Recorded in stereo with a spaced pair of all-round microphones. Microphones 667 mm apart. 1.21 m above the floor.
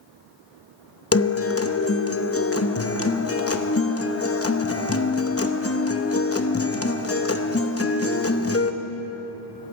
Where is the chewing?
I don't hear chewing.